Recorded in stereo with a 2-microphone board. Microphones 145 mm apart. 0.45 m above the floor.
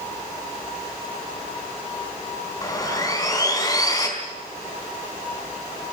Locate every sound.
2.6 s sawing: 25° left (ahead or behind), 4.5 m